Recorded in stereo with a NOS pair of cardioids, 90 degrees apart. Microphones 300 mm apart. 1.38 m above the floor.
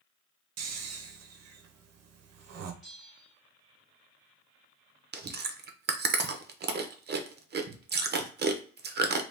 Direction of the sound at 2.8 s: Straight ahead.